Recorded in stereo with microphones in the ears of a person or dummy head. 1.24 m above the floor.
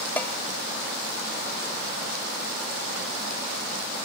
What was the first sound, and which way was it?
A bell, 5° left (ahead or behind).